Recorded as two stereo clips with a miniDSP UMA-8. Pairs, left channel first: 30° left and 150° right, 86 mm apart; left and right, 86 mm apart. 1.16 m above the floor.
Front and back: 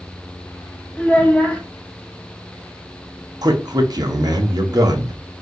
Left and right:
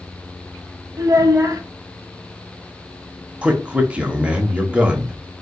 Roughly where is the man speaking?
Behind.